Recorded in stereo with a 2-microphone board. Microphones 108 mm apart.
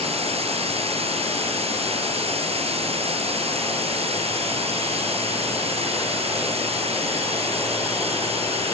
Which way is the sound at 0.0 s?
65° right (ahead or behind).